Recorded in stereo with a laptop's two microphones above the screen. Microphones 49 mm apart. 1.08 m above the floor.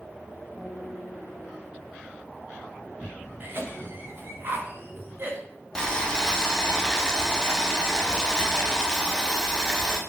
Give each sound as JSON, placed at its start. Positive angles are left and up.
{"t": 0.6, "sound": "a guitar", "side_deg": -35, "distance_m": 1.1}
{"t": 3.4, "sound": "a cough", "side_deg": -45, "distance_m": 1.5}
{"t": 5.8, "sound": "boiling", "side_deg": 15, "distance_m": 0.9}